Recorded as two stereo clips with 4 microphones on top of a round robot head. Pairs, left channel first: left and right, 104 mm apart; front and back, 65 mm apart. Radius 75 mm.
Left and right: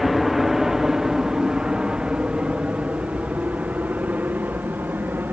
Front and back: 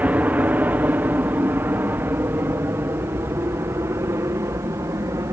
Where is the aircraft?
175° right; by 5.3 s 155° right.